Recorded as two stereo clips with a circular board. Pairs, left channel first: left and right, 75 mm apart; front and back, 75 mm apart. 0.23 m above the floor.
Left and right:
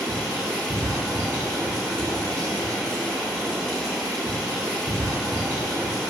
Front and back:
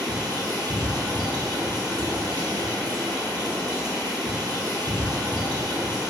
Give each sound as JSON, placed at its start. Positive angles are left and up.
{"t": 0.0, "sound": "running water", "azimuth_deg": 170, "distance_m": 1.1}